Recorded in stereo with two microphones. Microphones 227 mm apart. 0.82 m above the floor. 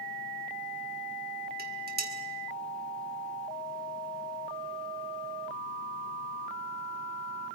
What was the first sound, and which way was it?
Dishes clattering, 40° right (ahead or behind).